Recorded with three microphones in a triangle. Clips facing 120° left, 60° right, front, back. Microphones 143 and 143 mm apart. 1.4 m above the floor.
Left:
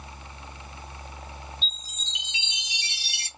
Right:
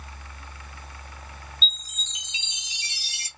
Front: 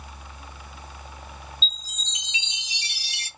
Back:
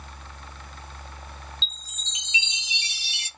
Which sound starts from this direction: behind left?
A chime, at 1.6 s.